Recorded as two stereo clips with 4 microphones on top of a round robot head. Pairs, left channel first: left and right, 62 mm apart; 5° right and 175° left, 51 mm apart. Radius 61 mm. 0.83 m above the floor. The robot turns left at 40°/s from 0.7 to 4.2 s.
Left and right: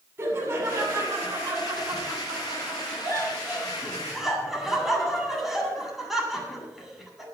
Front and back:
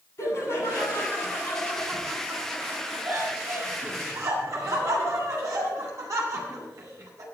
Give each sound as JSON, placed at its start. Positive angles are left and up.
{"t": 0.2, "sound": "laughter", "azimuth_deg": -35, "distance_m": 9.0}